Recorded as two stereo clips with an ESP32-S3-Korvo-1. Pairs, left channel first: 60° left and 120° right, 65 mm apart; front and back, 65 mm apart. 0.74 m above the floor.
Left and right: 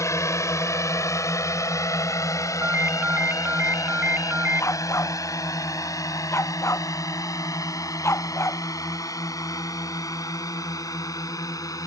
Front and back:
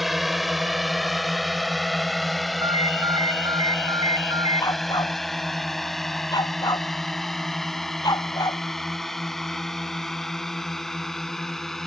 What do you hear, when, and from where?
0.0 s a drone: 95° left; by 11.9 s 85° left
2.6 s a ringtone: 175° left
4.6 s a dog barking: 15° left